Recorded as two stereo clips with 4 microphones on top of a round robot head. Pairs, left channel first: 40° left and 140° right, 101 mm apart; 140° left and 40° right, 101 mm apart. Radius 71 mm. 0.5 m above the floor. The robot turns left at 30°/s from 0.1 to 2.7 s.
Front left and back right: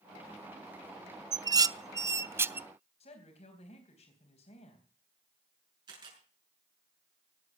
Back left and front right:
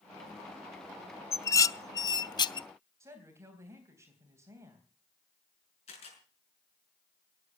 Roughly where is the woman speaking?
Ahead left.